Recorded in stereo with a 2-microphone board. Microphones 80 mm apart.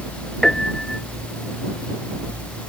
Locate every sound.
0.4 s a piano: 5° left (ahead or behind)